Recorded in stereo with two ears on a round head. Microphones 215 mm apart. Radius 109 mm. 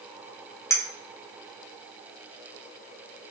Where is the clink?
10° left (ahead or behind), 0.8 m.